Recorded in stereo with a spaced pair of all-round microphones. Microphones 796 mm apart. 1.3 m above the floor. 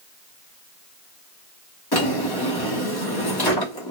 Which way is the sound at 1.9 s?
30° left (ahead or behind).